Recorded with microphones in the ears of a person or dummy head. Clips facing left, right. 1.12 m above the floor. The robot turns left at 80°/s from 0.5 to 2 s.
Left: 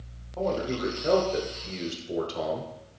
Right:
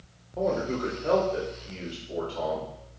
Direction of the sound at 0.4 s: 160° right.